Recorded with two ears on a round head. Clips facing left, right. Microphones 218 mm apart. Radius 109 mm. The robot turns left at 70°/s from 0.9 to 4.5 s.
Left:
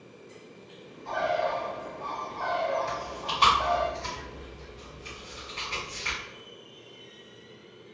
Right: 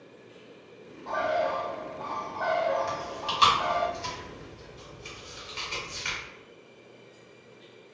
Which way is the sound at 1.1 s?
20° left (ahead or behind).